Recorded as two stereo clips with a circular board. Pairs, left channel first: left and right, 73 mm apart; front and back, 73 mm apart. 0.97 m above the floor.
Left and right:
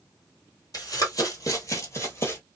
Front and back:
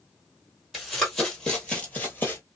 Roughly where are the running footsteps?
Left.